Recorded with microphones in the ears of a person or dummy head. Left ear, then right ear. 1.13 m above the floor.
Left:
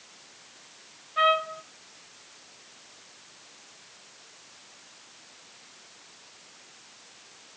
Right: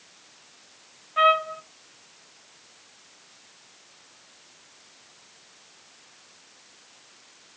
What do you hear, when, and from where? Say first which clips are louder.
1.2 s a trumpet: right 3 dB; 30° right (ahead or behind), 0.6 m